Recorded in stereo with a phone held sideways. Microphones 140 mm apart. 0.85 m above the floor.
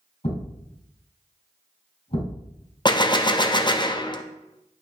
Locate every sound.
0.2 s a thud: 50° left (ahead or behind), 4 m
2.9 s a gunshot: 30° left (ahead or behind), 0.6 m